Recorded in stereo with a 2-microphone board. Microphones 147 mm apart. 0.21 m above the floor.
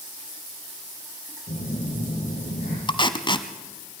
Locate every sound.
1.5 s a phone buzzing: 75° left (ahead or behind), 6.5 m
2.9 s tape being pulled: 35° left (ahead or behind), 0.9 m